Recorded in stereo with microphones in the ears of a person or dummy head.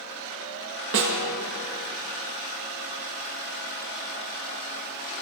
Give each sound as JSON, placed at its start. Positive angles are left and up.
{"t": 0.9, "sound": "a snare drum", "side_deg": -60, "distance_m": 1.2}